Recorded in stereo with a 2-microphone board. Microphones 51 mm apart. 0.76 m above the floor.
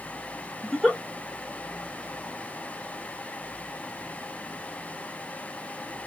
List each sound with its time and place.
0.6 s a giggle: 10° left (ahead or behind), 1.0 m